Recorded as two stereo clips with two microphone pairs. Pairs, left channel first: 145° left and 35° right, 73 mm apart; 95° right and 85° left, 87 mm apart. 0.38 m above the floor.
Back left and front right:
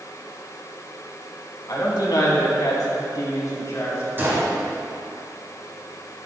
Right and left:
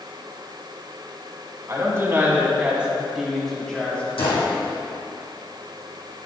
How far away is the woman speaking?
About 3 m.